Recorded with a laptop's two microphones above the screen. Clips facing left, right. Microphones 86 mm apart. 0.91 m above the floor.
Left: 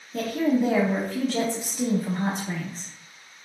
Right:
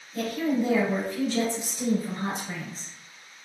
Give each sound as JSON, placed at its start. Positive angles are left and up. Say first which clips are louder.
{"t": 0.1, "sound": "a woman speaking", "louder": "left 3 dB", "side_deg": 60, "distance_m": 0.9}